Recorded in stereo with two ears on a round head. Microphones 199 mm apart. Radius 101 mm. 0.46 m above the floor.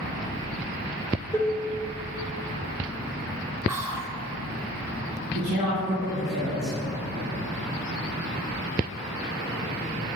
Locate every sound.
1.3 s dishes clattering: 10° left (ahead or behind), 0.9 m
3.7 s whispering: 15° right (ahead or behind), 1.3 m
5.3 s a woman speaking: 50° right (ahead or behind), 3 m